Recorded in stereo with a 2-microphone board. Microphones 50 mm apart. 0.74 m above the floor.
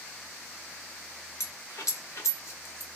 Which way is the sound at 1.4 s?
80° left.